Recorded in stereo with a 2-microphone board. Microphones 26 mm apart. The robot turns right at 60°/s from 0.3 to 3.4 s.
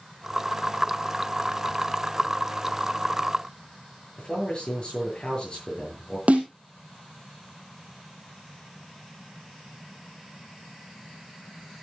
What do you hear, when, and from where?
4.2 s a man speaking: 30° left (ahead or behind), 8 m
6.3 s a snare drum: 60° right (ahead or behind), 3 m